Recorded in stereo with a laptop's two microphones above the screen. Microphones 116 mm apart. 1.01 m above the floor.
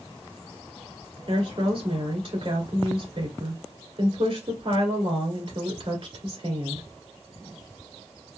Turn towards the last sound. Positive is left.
turn(degrees=-55)  # may be behind; listen again after turning